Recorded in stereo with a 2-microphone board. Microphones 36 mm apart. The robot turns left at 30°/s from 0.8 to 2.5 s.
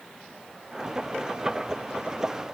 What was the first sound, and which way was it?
Only background noise.